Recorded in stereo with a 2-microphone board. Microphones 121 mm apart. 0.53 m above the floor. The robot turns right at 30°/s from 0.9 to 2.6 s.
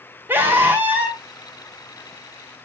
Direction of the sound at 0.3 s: 15° right (ahead or behind).